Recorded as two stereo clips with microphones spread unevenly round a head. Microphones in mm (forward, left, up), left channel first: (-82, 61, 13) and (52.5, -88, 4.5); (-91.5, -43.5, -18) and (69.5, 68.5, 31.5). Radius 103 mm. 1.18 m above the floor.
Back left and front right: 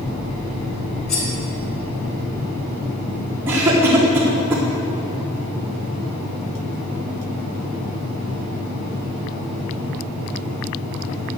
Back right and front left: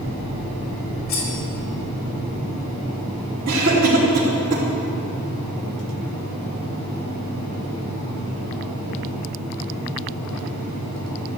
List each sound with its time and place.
1.1 s cutlery clinking: 170° left, 4 m
3.5 s a cough: 30° left, 3.5 m